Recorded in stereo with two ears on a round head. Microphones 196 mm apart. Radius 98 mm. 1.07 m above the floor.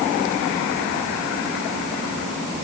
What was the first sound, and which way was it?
Only background noise.